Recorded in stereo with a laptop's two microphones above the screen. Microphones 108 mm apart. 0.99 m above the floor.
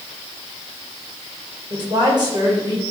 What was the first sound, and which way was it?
A woman speaking, 45° right (ahead or behind).